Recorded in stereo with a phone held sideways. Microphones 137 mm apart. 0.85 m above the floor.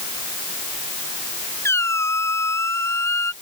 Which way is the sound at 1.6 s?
20° left (ahead or behind).